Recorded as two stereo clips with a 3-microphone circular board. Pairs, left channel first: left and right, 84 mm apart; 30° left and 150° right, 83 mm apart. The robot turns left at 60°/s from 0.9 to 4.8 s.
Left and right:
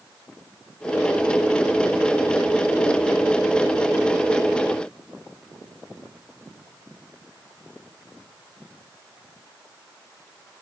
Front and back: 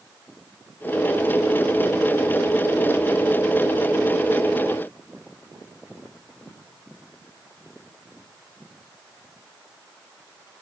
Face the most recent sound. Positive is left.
No sound to turn to.